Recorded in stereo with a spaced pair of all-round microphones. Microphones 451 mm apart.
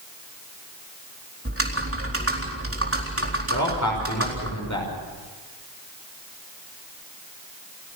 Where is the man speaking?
40° left (ahead or behind), 5.5 m.